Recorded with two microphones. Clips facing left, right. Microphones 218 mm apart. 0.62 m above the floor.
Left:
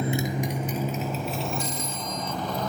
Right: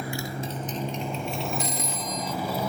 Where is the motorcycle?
25° left (ahead or behind); by 2.7 s 10° right (ahead or behind).